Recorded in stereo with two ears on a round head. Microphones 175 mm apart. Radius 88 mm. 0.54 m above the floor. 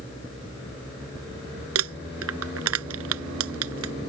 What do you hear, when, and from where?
1.8 s crumpling: 80° right